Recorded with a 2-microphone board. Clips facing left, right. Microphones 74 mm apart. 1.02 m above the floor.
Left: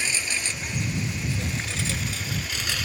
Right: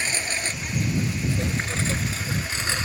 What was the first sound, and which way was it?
A lawn mower, 45° right (ahead or behind).